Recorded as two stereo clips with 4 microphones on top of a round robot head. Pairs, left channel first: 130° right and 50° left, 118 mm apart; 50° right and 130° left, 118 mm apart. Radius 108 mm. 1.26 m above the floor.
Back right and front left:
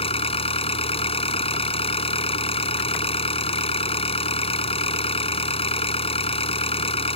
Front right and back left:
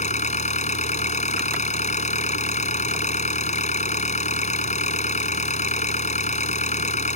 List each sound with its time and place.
0.0 s an engine running: 85° right